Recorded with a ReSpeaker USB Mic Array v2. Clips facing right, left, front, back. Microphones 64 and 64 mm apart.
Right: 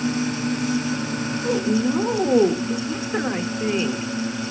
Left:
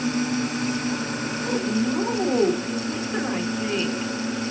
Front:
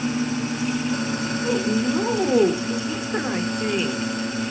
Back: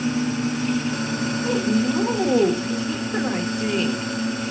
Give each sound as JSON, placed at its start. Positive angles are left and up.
{"t": 1.4, "sound": "a woman speaking", "azimuth_deg": -65, "distance_m": 0.8}